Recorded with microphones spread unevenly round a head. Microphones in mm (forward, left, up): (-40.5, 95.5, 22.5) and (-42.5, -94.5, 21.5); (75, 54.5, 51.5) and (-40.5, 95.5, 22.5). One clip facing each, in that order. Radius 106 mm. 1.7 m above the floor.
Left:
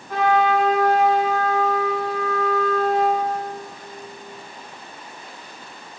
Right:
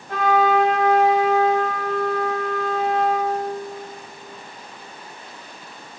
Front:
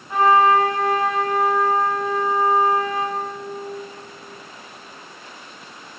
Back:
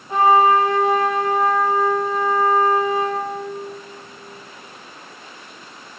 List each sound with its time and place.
0.1 s a trumpet: 120° right, 4 m